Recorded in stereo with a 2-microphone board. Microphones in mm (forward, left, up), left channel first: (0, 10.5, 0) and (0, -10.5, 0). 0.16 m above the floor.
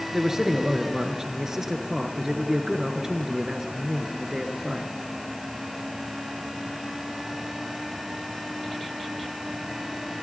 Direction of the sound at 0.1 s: 20° right (ahead or behind).